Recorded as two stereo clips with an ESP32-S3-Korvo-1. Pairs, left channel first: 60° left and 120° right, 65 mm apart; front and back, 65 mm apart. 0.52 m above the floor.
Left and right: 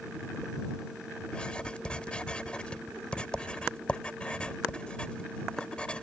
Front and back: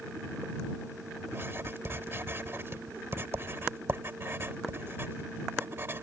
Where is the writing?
130° left.